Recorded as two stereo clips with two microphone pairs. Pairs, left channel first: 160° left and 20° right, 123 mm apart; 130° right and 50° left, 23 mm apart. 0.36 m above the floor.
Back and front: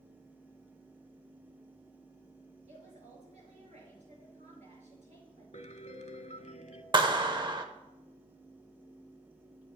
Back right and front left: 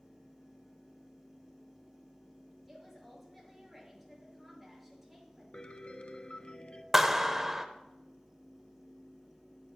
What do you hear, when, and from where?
2.7 s a woman speaking: 40° right, 6 m
5.5 s a piano: 175° right, 0.7 m
6.9 s a clap: 20° right, 0.8 m